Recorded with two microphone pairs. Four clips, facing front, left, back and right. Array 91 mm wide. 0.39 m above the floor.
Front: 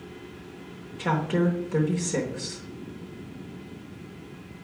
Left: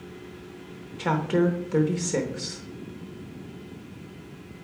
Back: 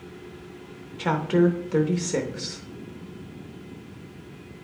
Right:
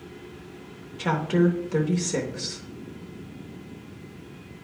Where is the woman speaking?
150° left, 0.8 m.